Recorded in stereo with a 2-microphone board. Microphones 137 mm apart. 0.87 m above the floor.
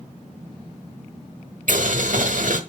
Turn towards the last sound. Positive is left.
turn(degrees=-70)  # may be behind; listen again after turning